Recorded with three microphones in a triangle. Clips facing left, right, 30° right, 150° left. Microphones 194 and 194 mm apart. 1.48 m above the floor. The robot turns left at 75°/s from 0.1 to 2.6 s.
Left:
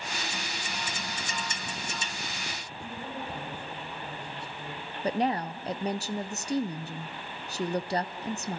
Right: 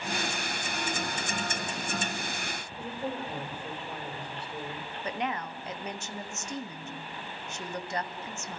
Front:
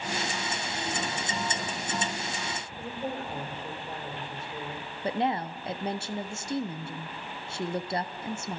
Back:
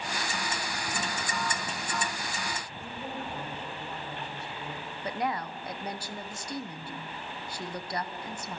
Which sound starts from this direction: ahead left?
A woman speaking, at 5.0 s.